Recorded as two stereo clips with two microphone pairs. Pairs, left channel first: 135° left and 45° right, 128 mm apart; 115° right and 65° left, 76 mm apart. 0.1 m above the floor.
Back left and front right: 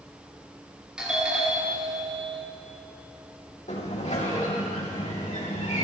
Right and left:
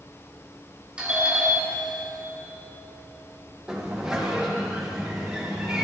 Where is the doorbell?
25° left, 2 m.